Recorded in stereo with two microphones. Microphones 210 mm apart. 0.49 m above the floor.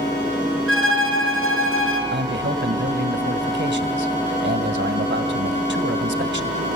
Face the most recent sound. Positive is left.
turn(degrees=-65)  # may be behind; listen again after turning